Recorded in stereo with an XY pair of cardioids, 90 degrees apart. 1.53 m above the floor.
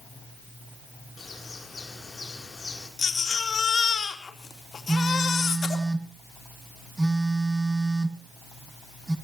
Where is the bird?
30° left, 7 m.